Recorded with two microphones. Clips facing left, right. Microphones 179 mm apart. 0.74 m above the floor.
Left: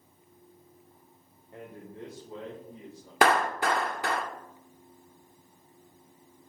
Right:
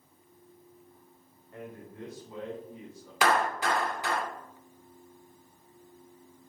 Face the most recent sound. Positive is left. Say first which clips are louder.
# left 2 dB
turn(degrees=60)  # may be behind; listen again after turning